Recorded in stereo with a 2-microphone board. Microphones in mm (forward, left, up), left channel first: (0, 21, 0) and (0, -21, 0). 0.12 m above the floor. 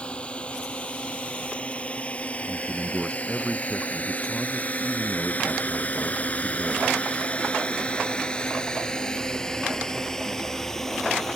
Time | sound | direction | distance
0.0 | a drone | 25° left (ahead or behind) | ?
2.5 | a man speaking | 5° left (ahead or behind) | ?